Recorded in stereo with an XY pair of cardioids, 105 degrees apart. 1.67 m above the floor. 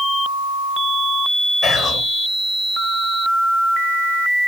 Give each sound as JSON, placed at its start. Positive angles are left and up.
{"t": 1.6, "sound": "whispering", "azimuth_deg": 65, "distance_m": 0.9}